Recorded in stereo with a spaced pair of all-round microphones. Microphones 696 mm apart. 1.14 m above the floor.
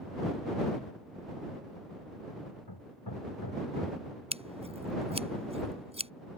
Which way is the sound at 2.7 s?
35° left (ahead or behind).